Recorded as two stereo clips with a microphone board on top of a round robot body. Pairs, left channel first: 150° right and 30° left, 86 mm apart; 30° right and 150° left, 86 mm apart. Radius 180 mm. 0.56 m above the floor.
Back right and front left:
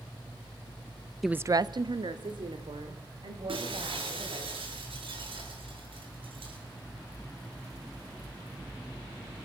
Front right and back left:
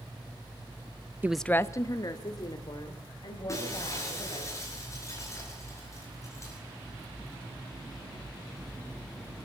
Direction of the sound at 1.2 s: 120° left.